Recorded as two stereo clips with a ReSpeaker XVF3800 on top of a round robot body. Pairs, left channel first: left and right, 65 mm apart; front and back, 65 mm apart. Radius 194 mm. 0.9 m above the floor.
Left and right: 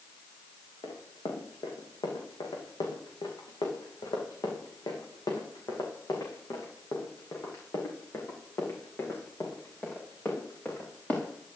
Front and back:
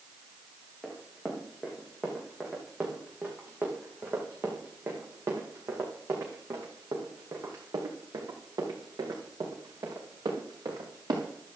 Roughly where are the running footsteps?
Left.